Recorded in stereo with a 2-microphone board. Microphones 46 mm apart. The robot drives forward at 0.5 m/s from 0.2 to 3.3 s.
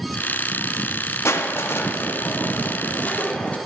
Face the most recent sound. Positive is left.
turn(degrees=30)  # may be behind; listen again after turning